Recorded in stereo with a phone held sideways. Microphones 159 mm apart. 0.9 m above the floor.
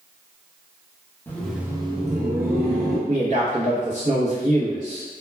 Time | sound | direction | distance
1.3 | laughter | 10° left (ahead or behind) | 0.8 m
3.1 | a man speaking | 50° right (ahead or behind) | 0.7 m